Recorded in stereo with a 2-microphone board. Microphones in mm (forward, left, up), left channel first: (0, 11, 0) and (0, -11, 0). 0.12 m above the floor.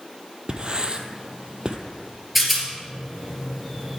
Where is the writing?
40° right (ahead or behind), 0.9 m.